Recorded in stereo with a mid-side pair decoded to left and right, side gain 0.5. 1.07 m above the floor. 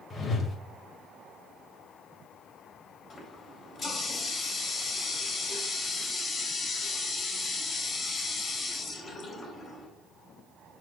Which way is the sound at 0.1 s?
40° left.